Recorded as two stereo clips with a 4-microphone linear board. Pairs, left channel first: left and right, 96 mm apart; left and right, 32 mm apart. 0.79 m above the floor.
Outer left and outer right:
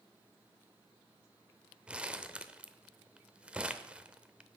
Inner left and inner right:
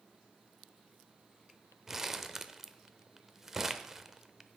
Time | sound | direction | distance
1.9 | crumpling | 10° right (ahead or behind) | 0.6 m